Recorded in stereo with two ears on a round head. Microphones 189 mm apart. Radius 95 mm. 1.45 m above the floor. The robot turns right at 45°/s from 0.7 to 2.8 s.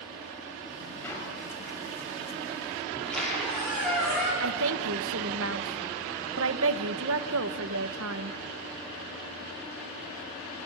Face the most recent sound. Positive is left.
turn(degrees=-70)  # may be behind; listen again after turning